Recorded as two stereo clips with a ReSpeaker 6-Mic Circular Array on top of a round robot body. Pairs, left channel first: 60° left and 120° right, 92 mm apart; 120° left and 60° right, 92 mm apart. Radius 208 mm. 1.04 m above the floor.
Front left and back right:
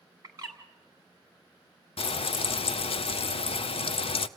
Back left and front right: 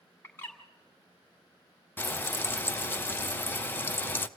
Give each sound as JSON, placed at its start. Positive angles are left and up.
{"t": 0.2, "sound": "a bird", "azimuth_deg": -175, "distance_m": 1.5}
{"t": 2.0, "sound": "frying", "azimuth_deg": 50, "distance_m": 0.6}